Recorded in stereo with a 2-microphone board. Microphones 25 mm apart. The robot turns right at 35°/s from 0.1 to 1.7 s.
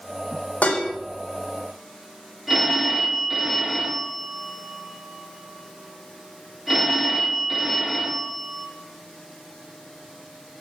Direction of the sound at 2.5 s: 10° right (ahead or behind).